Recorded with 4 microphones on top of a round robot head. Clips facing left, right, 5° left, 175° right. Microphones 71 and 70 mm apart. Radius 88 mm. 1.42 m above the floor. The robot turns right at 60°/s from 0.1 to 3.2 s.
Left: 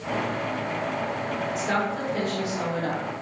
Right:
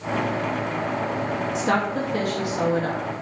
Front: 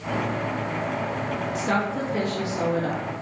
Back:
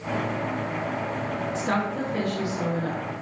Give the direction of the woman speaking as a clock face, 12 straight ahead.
4 o'clock.